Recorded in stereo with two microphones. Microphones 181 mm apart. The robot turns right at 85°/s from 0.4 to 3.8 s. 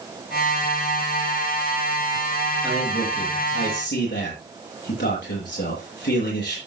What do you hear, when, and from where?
2.6 s a man speaking: straight ahead, 9.5 m; by 6.6 s 100° left, 9.5 m